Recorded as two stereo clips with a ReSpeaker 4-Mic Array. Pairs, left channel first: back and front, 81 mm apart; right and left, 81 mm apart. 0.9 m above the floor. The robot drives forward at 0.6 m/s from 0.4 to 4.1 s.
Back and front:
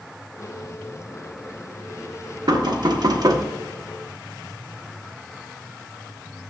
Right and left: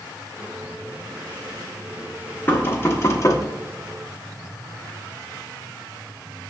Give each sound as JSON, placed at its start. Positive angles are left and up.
{"t": 2.5, "sound": "knocking", "azimuth_deg": -25, "distance_m": 1.2}